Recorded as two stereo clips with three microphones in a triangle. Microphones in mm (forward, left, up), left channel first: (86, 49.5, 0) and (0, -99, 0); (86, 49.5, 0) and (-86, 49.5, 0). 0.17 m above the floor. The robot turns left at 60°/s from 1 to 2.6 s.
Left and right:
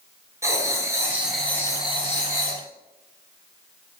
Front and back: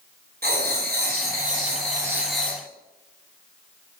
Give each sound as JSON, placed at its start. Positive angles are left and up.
{"t": 0.4, "sound": "writing", "azimuth_deg": 170, "distance_m": 0.7}